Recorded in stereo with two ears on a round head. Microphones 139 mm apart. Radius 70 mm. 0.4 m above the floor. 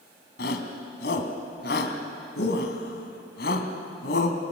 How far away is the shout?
About 3 m.